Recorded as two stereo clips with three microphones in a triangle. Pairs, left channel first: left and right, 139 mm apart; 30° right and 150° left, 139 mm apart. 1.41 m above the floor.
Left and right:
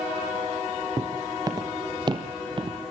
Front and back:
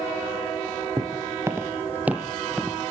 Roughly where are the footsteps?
Behind right.